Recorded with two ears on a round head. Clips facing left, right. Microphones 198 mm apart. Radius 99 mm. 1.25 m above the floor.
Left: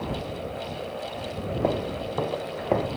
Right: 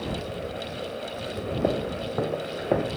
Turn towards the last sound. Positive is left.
turn(degrees=-10)  # may be behind; listen again after turning